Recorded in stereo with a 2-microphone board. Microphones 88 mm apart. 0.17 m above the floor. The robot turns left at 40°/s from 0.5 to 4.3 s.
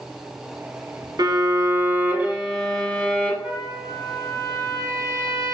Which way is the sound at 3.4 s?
10° right.